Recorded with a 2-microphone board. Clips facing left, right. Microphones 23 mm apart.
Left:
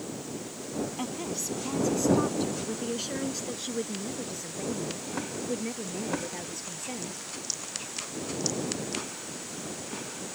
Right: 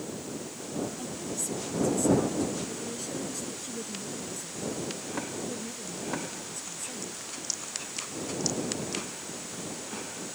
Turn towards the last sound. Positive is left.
turn(degrees=30)  # may be behind; listen again after turning